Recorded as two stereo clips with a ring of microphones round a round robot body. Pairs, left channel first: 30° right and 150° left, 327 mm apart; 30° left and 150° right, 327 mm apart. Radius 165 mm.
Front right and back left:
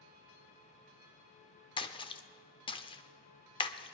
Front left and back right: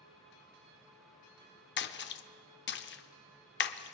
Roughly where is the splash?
Ahead left.